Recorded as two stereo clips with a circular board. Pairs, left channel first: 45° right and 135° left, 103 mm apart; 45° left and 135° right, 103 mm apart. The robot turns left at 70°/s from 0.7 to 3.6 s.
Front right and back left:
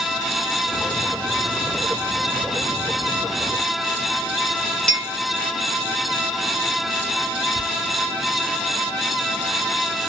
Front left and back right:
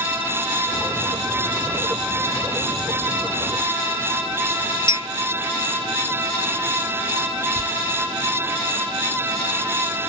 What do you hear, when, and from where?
4.9 s a clink: 35° left, 0.8 m
7.5 s whispering: 85° right, 1.3 m